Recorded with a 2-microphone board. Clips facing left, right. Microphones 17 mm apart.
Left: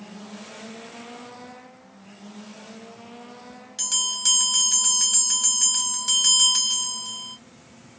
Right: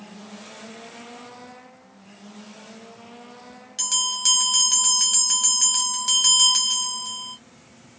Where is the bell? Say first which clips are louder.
Right 2 dB; 10° right (ahead or behind), 1.4 m.